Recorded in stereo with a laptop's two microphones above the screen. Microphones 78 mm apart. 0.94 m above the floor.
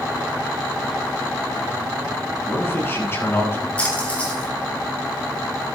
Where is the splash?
20° left (ahead or behind), 7.5 m.